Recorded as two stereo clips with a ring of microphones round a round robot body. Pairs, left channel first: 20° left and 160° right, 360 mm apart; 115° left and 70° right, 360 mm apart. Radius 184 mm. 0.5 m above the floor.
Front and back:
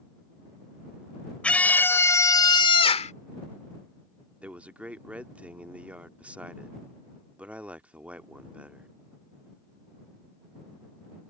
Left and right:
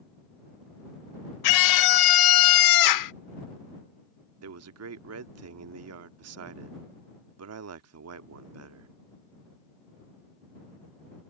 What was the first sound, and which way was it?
A scream, 110° left.